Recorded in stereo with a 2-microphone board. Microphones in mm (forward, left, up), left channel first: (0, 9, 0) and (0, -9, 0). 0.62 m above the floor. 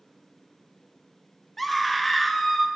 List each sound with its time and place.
1.6 s a scream: 10° left (ahead or behind), 0.7 m